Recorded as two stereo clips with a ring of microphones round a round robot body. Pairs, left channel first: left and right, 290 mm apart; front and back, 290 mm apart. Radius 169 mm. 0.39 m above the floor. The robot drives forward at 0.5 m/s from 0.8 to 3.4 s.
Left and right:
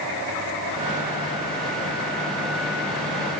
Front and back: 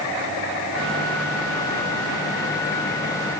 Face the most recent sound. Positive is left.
No sound to turn to.